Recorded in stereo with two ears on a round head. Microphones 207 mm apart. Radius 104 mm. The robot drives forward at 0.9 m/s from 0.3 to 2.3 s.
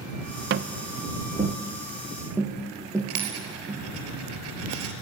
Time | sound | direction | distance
0.5 | tapping | 45° right (ahead or behind) | 0.5 m
3.1 | a dropped coin | 70° right (ahead or behind) | 3.5 m